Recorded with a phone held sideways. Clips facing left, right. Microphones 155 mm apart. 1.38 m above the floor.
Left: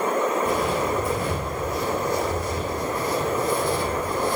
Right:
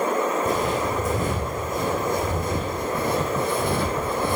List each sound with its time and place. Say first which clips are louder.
0.5 s footsteps: even; 40° right (ahead or behind), 5.5 m; by 4.4 s 60° right (ahead or behind), 3 m